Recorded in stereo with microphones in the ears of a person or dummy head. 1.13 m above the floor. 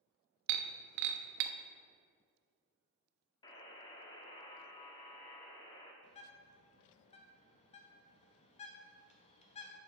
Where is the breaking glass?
65° right (ahead or behind), 0.5 m.